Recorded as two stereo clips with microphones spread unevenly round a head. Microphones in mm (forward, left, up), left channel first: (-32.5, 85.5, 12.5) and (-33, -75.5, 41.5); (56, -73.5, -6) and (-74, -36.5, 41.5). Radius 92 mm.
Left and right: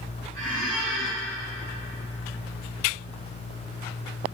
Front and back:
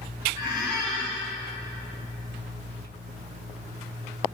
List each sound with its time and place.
0.3 s a squeak: 15° left, 2.5 m